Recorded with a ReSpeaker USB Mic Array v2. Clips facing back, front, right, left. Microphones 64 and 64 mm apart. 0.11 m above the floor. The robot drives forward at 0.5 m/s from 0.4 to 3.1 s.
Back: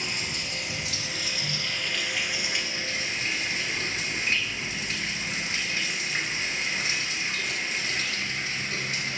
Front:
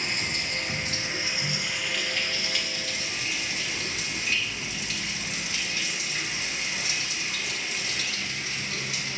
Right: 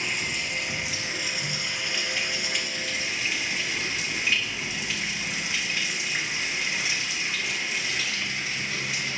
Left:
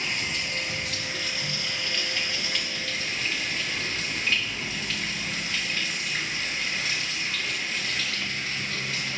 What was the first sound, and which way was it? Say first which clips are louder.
Running water: front 2 dB, right 1 dB; 15° right.